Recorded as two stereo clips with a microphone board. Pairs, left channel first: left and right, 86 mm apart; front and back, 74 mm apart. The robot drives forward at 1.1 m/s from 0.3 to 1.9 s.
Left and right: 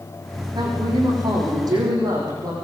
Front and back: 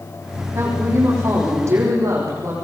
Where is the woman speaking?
125° right, 10 m; by 2.5 s 130° right, 11 m.